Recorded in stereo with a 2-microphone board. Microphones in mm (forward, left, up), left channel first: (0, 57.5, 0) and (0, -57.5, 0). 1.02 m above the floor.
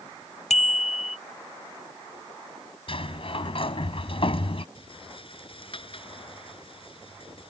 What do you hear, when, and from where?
0.5 s a bicycle bell: 75° left (ahead or behind)
2.9 s a sliding door: 50° left (ahead or behind)
4.8 s a rattle: 50° left (ahead or behind)